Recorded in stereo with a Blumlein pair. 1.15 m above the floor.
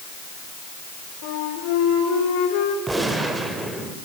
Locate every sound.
1.2 s a flute: 45° left, 4 m
2.9 s a gunshot: 10° right, 2.5 m